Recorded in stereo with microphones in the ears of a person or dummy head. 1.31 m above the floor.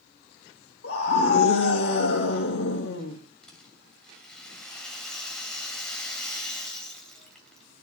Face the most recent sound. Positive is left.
turn(degrees=0)  # may be behind; listen again after turning